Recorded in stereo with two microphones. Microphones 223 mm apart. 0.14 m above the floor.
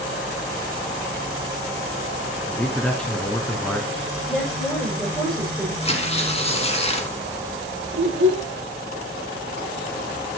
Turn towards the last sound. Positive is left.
turn(degrees=-65)  # may be behind; listen again after turning